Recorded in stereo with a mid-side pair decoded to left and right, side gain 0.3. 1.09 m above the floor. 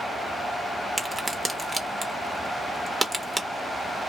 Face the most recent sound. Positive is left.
turn(degrees=-25)